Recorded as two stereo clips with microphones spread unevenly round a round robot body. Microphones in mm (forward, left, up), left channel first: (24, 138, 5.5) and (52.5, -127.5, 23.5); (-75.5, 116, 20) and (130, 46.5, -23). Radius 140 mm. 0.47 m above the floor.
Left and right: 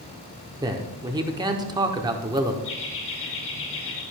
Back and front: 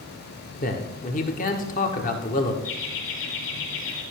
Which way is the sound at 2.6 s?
145° left.